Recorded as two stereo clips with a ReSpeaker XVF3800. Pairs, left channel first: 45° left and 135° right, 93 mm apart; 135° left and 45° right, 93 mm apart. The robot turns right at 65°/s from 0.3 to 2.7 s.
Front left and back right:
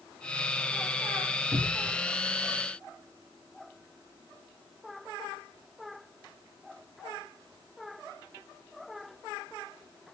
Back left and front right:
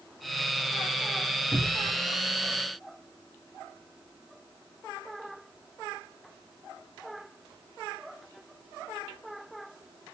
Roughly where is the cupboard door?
Behind right.